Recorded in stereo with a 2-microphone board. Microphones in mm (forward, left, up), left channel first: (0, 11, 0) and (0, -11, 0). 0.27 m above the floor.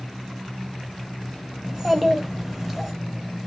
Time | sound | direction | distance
1.6 | a child speaking | 15° right (ahead or behind) | 0.6 m